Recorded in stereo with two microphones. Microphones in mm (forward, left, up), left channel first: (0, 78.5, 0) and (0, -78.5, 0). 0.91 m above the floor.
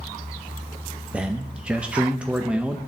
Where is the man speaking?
5° right (ahead or behind), 0.6 m.